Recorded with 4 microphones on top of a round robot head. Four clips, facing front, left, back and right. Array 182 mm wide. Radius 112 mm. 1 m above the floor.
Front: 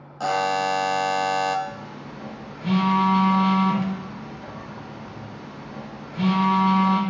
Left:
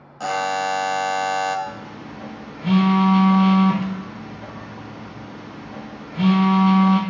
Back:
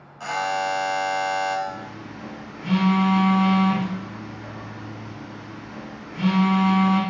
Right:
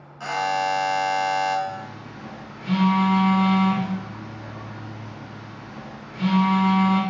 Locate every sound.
0.2 s a buzzer: 35° left, 0.5 m
1.7 s a phone buzzing: 80° left, 1.4 m